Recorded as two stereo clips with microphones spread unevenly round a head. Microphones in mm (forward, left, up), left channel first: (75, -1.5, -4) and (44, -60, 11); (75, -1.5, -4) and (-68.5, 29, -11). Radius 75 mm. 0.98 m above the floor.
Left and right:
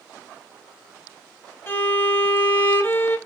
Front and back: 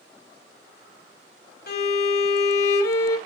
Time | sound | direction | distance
1.7 | a violin | 10° left | 1.0 m